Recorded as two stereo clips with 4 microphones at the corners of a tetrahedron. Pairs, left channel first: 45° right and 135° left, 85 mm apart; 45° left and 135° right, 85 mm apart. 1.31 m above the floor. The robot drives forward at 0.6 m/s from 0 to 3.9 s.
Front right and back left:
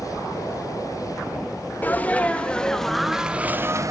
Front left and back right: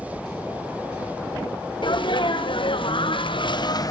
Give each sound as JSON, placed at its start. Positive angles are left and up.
{"t": 1.8, "sound": "a sneeze", "azimuth_deg": 25, "distance_m": 1.4}